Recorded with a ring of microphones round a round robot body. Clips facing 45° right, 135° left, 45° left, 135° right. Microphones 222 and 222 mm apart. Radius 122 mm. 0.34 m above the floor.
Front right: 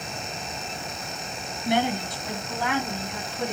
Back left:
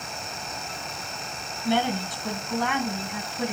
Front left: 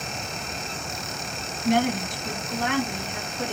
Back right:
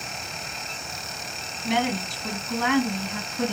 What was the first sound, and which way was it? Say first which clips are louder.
A woman speaking: even, front left 3 dB; 115° right.